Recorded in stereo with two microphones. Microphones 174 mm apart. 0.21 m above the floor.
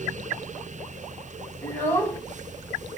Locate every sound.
1.6 s a child speaking: 10° left (ahead or behind), 1.0 m